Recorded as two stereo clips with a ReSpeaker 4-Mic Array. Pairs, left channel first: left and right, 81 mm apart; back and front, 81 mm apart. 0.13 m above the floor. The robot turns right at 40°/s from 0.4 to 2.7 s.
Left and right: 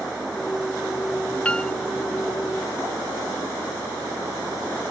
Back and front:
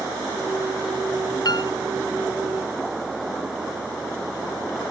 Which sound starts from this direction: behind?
A piano, at 1.4 s.